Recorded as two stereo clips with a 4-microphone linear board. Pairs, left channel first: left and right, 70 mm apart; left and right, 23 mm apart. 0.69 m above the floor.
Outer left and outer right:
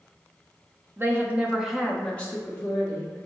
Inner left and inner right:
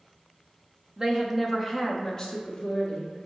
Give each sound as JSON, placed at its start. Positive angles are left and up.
{"t": 1.0, "sound": "a woman speaking", "side_deg": -35, "distance_m": 0.6}